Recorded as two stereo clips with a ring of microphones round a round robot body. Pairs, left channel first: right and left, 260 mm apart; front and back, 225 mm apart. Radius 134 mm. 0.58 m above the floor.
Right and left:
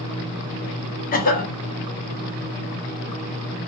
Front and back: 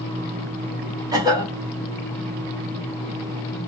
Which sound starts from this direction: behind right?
A cough, at 1.1 s.